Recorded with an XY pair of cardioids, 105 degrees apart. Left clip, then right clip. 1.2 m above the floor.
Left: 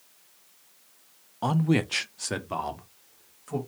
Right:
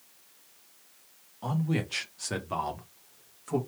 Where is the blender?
I don't hear a blender.